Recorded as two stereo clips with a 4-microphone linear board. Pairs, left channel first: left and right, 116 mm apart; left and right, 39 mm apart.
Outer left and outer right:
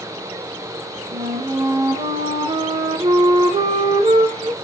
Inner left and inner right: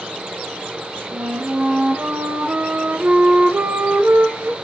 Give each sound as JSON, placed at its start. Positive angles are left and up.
{"t": 1.1, "sound": "a flute", "side_deg": -60, "distance_m": 0.9}